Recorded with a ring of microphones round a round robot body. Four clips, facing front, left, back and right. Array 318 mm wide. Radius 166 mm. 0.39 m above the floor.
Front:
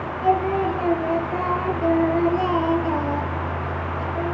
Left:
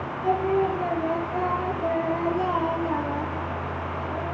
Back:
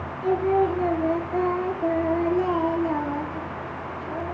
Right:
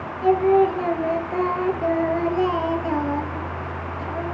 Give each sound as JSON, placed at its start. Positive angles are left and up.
{"t": 0.2, "sound": "singing", "azimuth_deg": -55, "distance_m": 3.0}